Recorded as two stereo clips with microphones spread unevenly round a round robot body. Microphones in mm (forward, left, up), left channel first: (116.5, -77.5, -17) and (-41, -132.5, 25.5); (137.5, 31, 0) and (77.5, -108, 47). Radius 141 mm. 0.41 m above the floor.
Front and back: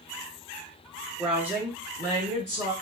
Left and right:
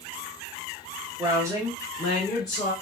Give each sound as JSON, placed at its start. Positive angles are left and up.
{"t": 1.2, "sound": "a woman speaking", "azimuth_deg": -40, "distance_m": 1.0}